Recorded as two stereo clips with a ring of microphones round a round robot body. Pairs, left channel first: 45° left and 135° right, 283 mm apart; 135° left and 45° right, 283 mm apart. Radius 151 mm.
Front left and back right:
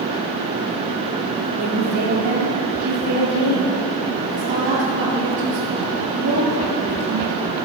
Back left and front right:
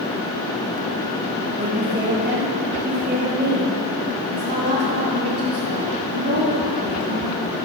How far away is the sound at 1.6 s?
About 7.5 m.